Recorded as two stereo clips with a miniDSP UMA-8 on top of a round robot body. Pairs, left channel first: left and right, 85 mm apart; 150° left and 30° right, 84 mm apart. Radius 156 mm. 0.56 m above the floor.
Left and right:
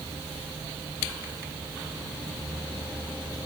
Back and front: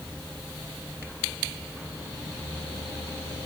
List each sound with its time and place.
Only background noise.